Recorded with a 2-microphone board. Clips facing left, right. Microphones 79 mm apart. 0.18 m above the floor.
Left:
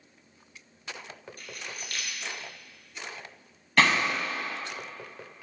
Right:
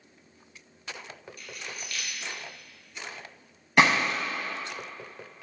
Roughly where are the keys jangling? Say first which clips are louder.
Even; left.